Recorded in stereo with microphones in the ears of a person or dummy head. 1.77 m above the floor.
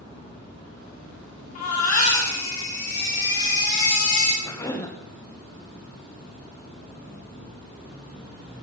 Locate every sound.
1.6 s a baby crying: 50° left (ahead or behind), 3.5 m
4.4 s a cough: 20° left (ahead or behind), 2 m